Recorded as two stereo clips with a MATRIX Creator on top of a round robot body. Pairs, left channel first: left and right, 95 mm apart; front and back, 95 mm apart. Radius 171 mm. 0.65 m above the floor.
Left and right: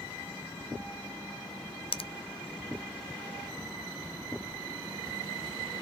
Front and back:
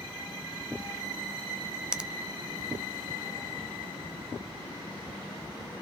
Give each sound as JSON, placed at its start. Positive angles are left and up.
{"t": 1.9, "sound": "a finger snap", "azimuth_deg": 100, "distance_m": 0.5}